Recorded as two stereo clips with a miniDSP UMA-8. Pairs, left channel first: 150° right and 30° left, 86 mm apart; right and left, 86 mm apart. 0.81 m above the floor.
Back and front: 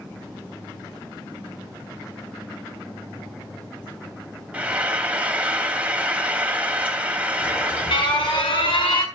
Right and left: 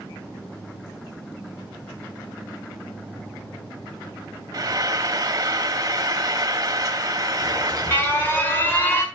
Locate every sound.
4.5 s frying: 100° left, 0.8 m
7.4 s an alarm: 155° right, 1.8 m